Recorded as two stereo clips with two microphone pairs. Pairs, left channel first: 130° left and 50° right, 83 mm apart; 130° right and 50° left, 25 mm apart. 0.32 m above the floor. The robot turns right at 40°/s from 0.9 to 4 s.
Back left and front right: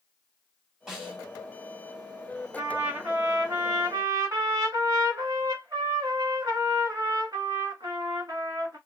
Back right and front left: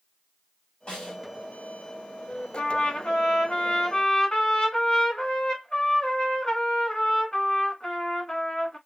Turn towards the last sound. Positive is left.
turn(degrees=-65)